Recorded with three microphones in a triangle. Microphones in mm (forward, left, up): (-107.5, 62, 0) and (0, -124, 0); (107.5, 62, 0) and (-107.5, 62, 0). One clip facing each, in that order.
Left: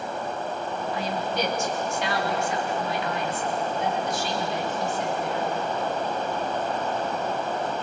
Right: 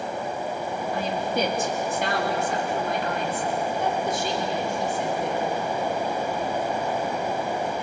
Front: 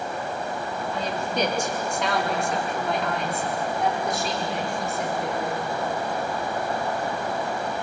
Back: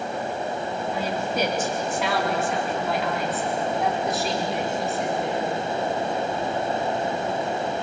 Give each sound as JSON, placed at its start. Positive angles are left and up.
{"t": 0.9, "sound": "a woman speaking", "azimuth_deg": -95, "distance_m": 3.0}